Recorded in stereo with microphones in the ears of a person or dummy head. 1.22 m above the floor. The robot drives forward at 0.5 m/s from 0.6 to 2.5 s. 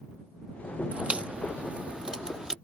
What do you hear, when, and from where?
0.9 s a crack: 5° right (ahead or behind)